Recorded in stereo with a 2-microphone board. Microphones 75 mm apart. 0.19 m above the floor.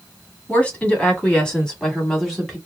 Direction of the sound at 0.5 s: 20° left (ahead or behind).